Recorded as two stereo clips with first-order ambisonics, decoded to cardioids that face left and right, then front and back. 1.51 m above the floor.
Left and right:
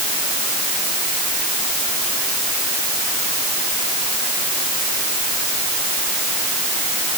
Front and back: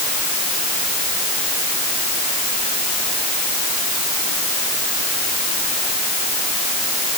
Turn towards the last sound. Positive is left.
No sound to turn to.